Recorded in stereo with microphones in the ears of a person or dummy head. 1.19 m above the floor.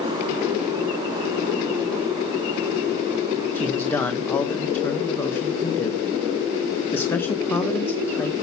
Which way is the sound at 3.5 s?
15° left (ahead or behind).